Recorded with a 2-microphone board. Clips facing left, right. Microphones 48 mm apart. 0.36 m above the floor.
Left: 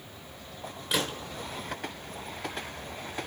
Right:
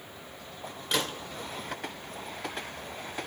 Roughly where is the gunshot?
Centre.